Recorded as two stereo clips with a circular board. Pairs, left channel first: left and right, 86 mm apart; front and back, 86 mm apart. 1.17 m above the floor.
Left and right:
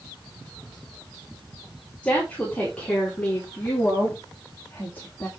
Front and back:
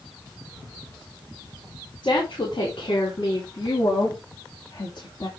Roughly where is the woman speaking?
Ahead.